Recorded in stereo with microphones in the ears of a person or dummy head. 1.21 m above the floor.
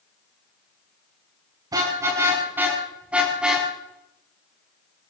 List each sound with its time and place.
1.7 s a car horn: 20° right (ahead or behind), 6 m; by 3.7 s 5° right (ahead or behind), 5 m